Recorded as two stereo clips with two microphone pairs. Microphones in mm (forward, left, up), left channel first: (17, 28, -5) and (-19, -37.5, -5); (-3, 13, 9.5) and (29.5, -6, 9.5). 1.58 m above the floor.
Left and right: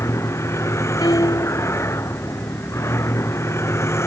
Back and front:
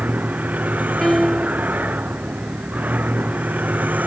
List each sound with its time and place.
0.0 s a vehicle: 10° left
1.0 s a piano: 70° left